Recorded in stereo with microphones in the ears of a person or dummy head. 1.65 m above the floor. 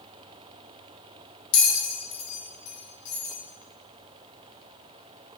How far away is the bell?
About 1.1 m.